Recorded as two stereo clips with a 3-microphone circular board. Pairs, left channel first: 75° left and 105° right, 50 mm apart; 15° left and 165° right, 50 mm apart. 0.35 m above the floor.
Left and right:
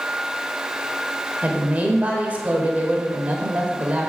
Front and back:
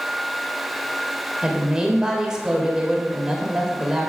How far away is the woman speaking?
About 1.0 m.